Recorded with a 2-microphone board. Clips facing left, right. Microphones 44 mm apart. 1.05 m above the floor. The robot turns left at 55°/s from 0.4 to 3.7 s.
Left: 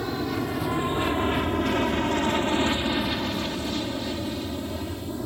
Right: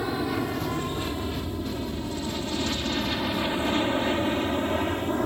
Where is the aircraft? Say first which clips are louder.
Even; 10° right (ahead or behind); by 5.3 s 50° right (ahead or behind).